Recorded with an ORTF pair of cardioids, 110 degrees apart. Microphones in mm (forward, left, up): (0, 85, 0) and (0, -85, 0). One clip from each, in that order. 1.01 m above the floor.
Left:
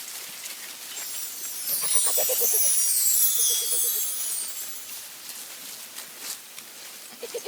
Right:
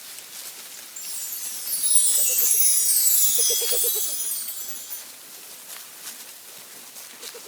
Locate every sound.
1.0 s a chime: 25° right, 2.5 m